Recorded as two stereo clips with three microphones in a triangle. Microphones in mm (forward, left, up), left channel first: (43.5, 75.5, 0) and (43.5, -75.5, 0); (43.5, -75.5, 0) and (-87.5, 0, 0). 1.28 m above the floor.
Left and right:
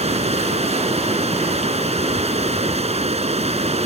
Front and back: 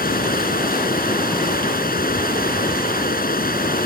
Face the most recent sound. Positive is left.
turn(degrees=-45)